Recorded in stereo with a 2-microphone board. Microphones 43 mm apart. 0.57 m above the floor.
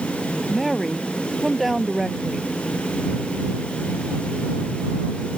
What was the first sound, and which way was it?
A woman speaking, centre (ahead or behind).